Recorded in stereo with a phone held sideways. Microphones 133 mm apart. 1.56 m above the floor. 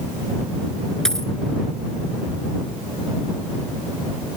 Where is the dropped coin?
5° left (ahead or behind).